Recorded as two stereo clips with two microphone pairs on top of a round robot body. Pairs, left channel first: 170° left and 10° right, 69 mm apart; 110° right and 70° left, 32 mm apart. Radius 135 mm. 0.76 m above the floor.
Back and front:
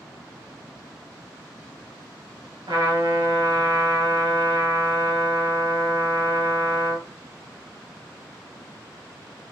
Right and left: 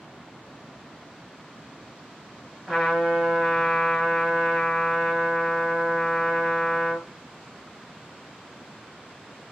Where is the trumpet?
10° right, 3.5 m.